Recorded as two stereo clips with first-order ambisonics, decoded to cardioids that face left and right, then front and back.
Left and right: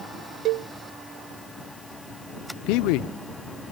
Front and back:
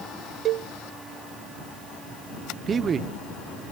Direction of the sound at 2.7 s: 115° left.